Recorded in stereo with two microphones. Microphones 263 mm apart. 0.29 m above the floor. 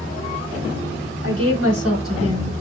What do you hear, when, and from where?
1.2 s a woman speaking: 55° right (ahead or behind), 2.0 m; by 2.6 s 65° right (ahead or behind), 3 m